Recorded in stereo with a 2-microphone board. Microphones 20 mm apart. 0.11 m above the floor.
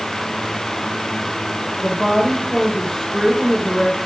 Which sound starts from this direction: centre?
A woman speaking, at 1.8 s.